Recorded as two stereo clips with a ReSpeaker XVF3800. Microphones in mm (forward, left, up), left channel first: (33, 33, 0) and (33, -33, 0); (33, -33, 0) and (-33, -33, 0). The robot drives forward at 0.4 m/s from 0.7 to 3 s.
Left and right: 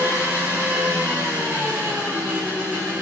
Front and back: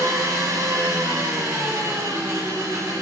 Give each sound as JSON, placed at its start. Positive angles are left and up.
{"t": 0.0, "sound": "an engine running", "azimuth_deg": -150, "distance_m": 5.5}